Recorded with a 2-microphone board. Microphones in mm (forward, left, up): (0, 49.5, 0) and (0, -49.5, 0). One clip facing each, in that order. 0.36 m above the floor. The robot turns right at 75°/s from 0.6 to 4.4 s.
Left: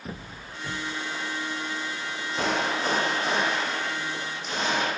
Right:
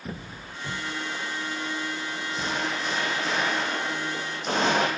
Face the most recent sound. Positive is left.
turn(degrees=-115)